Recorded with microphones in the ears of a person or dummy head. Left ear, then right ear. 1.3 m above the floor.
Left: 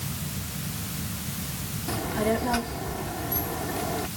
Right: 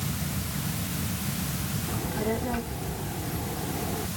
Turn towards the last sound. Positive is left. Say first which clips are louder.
# left 5 dB
turn(degrees=85)